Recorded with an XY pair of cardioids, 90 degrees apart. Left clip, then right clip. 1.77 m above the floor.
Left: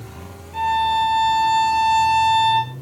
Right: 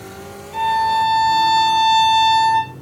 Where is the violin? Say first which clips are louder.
Right 2 dB; 70° right, 2.5 m.